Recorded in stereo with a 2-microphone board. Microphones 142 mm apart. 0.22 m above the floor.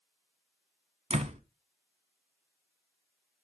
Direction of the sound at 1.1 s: 50° right (ahead or behind).